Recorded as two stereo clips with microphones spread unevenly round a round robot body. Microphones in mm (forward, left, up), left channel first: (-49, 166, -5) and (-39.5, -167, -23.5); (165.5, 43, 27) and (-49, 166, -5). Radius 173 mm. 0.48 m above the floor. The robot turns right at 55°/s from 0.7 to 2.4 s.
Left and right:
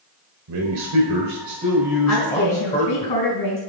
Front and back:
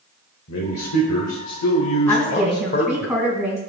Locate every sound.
0.5 s a man speaking: 75° right, 1.4 m; by 3.1 s 20° left, 1.4 m
2.1 s a woman speaking: 45° left, 4 m; by 3.6 s 65° left, 4 m